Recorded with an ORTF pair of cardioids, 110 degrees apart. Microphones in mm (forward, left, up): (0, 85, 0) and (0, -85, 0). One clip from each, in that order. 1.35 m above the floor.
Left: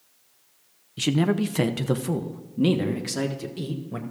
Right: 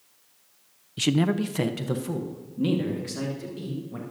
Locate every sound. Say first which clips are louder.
1.0 s a man speaking: left 1 dB; 5° right, 0.5 m; by 4.0 s 40° left, 1.9 m